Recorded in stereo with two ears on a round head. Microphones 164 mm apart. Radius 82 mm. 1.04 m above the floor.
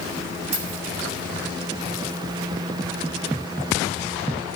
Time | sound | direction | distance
0.5 | keys jangling | 35° right (ahead or behind) | 3.5 m